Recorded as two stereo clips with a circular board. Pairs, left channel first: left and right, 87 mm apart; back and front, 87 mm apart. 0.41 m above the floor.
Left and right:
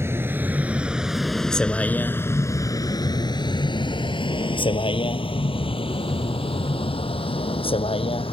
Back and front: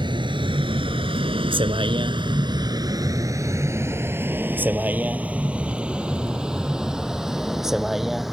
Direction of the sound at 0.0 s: 30° right.